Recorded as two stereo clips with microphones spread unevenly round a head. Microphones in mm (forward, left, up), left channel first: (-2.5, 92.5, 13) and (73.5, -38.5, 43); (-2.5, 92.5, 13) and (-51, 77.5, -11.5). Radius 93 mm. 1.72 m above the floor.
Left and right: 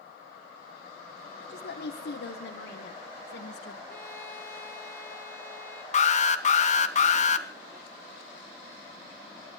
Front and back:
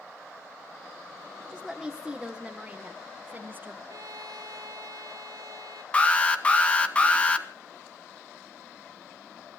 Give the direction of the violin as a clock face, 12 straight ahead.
5 o'clock.